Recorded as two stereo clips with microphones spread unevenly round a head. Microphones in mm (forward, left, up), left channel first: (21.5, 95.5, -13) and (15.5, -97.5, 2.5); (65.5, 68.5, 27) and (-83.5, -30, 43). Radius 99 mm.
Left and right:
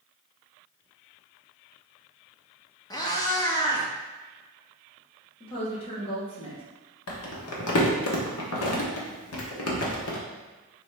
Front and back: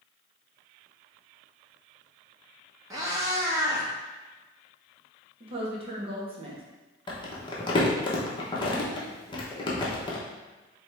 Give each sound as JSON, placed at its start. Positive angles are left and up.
{"t": 2.9, "sound": "a cat meowing", "azimuth_deg": 155, "distance_m": 0.9}
{"t": 5.4, "sound": "a woman speaking", "azimuth_deg": 155, "distance_m": 1.3}
{"t": 7.1, "sound": "crumpling", "azimuth_deg": 100, "distance_m": 1.1}